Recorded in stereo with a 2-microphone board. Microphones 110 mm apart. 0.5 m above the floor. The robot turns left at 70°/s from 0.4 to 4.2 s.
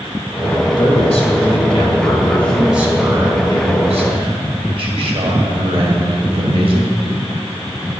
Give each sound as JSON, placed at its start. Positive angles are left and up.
{"t": 0.8, "sound": "a man speaking", "azimuth_deg": 130, "distance_m": 2.5}